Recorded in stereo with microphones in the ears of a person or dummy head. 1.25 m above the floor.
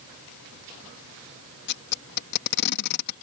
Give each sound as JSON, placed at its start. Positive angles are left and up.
{"t": 1.7, "sound": "tape being pulled", "side_deg": 55}